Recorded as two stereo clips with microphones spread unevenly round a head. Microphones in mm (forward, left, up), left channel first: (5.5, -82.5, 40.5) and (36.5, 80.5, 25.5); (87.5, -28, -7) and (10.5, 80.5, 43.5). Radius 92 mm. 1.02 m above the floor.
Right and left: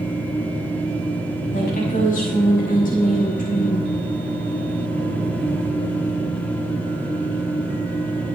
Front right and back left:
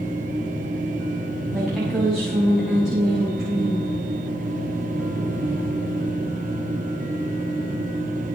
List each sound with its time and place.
0.0 s a machine running: straight behind, 2 m
1.5 s a woman speaking: 145° right, 6.5 m